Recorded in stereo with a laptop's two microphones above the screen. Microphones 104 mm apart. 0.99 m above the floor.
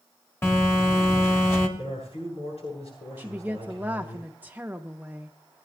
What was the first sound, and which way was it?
A phone buzzing, 25° left (ahead or behind).